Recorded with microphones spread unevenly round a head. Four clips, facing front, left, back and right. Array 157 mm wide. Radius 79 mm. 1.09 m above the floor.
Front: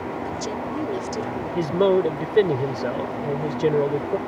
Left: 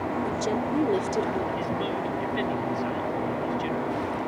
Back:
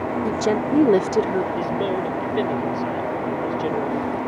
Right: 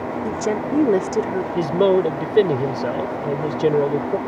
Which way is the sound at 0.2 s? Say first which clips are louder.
Right 4 dB, back 7 dB; 145° right.